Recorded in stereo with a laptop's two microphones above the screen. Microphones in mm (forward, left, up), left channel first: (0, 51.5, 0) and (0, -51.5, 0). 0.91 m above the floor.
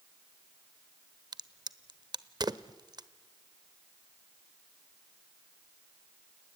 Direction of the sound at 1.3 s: 45° right (ahead or behind).